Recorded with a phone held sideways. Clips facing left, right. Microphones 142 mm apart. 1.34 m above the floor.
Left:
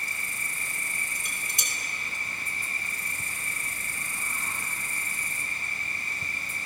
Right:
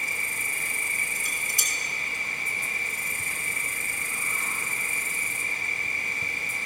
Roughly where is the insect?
Right.